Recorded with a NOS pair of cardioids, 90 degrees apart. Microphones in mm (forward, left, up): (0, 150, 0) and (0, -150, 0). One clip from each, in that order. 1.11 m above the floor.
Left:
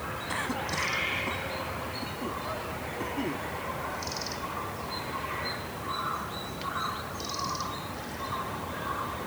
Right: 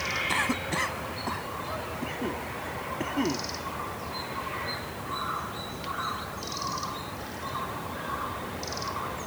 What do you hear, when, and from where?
0.3 s a cough: 35° right